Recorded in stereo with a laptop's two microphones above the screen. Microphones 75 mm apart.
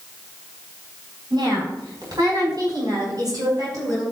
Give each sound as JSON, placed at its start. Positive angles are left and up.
{"t": 1.3, "sound": "a woman speaking", "side_deg": -65, "distance_m": 4.0}